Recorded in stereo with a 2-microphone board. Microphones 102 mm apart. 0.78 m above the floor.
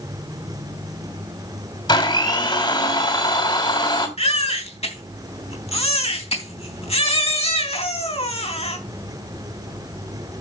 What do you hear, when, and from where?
1.9 s a blender: 45° left (ahead or behind), 3 m
4.2 s a baby crying: 70° left (ahead or behind), 3 m